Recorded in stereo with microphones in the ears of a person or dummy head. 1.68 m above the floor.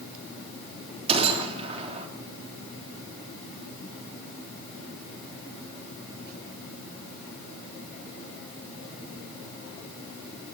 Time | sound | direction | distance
1.1 | a gunshot | 40° right (ahead or behind) | 3 m